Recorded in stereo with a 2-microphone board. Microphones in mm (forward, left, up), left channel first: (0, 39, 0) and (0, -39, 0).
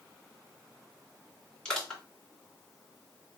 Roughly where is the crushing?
Centre.